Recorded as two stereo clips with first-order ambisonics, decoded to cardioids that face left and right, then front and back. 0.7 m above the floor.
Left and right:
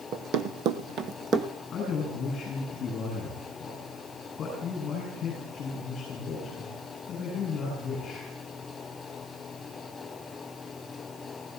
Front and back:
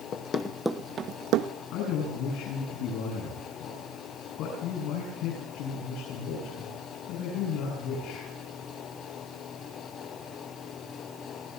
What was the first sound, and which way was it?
Running footsteps, 50° right.